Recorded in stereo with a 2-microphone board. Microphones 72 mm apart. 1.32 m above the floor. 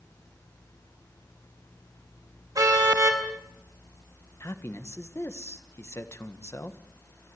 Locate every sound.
2.5 s a car horn: 55° right (ahead or behind), 4.5 m
4.4 s a man speaking: 40° left (ahead or behind), 1.4 m